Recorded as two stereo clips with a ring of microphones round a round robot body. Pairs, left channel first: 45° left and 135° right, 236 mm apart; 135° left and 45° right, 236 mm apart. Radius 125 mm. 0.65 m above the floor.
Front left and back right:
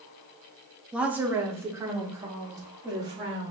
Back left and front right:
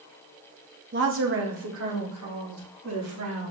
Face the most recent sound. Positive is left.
turn(degrees=-60)